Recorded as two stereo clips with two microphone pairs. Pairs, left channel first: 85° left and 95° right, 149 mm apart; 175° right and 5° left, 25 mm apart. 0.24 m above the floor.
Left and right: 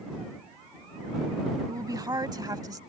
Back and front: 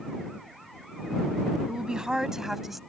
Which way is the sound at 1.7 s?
40° right.